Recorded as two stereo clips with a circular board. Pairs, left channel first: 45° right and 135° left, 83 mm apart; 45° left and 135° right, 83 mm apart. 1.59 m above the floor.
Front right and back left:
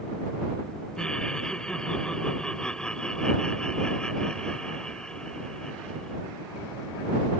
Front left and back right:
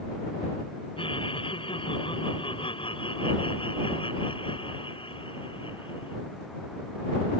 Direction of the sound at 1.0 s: 35° left.